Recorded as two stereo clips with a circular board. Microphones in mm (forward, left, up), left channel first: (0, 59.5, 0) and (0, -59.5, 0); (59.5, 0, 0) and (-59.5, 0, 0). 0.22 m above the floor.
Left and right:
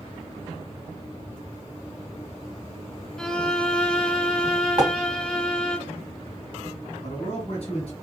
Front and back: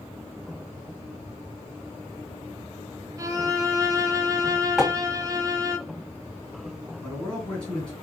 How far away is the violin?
About 0.6 m.